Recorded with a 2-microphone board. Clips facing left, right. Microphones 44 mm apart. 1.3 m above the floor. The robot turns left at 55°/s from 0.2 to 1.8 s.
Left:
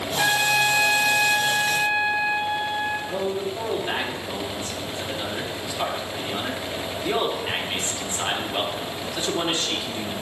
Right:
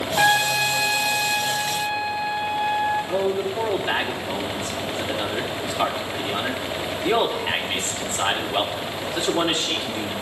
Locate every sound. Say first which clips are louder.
0.2 s a trumpet: right 2 dB; 140° right, 6 m; by 3.0 s 135° left, 6 m
3.1 s a man speaking: right 4 dB; 15° right (ahead or behind), 2.5 m